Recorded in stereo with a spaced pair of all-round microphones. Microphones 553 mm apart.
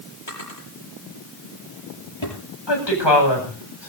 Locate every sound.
0.3 s a drawer: 55° left (ahead or behind), 8.5 m
2.7 s a woman speaking: 50° left (ahead or behind), 8.5 m